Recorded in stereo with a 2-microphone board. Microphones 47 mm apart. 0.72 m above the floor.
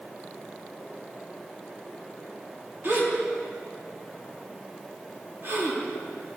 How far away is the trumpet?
I don't hear a trumpet.